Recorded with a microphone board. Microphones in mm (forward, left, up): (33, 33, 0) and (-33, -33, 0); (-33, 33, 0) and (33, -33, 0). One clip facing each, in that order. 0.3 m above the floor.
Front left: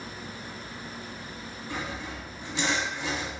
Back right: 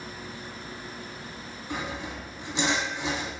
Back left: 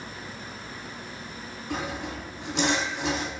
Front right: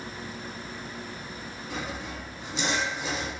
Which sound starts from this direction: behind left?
Sawing, at 1.7 s.